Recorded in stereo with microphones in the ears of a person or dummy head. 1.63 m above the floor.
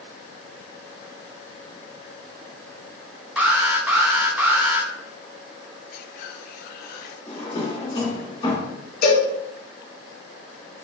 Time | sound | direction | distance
3.4 | an alarm | 5° right (ahead or behind) | 0.6 m
5.9 | whispering | 55° left (ahead or behind) | 0.6 m
7.3 | a drawer | 30° left (ahead or behind) | 2.0 m
9.0 | a cowbell | 50° left (ahead or behind) | 2.5 m